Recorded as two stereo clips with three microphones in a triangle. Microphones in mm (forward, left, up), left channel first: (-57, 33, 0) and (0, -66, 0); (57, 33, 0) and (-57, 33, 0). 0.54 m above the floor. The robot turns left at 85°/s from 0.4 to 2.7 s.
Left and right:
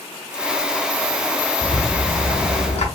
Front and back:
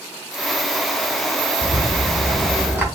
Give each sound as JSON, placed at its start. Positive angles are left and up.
{"t": 1.6, "sound": "a rattle", "azimuth_deg": -160, "distance_m": 1.2}